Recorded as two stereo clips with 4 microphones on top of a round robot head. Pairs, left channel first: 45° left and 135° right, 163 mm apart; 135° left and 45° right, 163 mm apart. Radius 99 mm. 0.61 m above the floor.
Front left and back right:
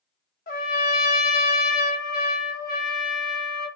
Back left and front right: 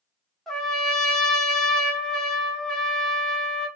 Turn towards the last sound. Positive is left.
turn(degrees=50)